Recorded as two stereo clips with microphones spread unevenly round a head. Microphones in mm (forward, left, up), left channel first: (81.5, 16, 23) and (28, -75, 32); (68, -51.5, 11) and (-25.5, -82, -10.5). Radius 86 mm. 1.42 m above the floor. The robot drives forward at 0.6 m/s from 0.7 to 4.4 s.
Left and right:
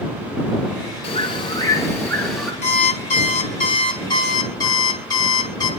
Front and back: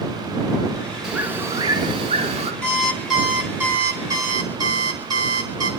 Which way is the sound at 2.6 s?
90° left.